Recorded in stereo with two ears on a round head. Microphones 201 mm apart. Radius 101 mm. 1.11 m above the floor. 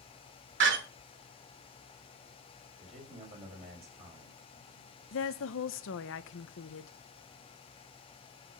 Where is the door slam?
55° right (ahead or behind), 2.5 m.